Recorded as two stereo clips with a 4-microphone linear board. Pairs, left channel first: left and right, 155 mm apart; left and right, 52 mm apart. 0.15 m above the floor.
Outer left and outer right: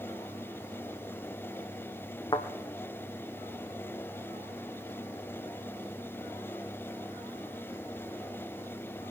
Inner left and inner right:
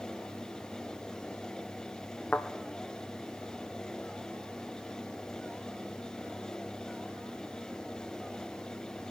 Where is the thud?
30° left (ahead or behind), 2.5 m.